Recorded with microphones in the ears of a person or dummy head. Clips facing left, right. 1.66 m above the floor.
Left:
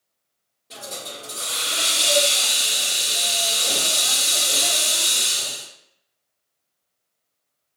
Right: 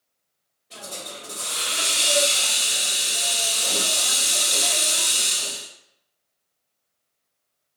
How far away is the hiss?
About 1.9 m.